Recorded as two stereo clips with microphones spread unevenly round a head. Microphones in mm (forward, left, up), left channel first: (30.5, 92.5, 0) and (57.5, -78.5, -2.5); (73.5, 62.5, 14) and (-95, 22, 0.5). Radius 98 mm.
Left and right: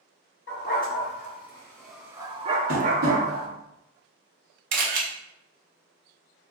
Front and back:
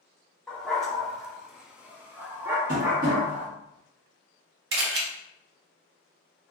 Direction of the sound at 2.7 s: 120° right.